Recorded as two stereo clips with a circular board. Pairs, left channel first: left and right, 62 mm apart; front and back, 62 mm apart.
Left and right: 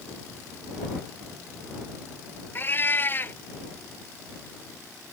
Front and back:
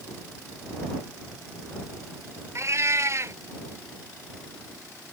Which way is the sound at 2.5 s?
140° left.